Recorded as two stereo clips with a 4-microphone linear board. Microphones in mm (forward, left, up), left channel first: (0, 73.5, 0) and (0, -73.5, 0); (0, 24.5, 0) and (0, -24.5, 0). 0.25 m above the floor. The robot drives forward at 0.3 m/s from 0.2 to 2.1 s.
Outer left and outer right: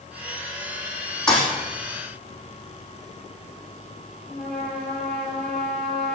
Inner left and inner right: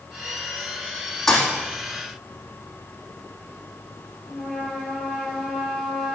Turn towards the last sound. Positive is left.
turn(degrees=0)  # may be behind; listen again after turning